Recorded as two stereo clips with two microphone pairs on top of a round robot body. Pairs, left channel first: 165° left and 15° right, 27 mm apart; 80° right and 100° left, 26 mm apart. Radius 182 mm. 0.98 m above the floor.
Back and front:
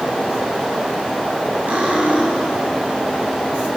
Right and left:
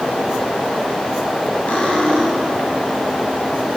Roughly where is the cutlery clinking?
Ahead right.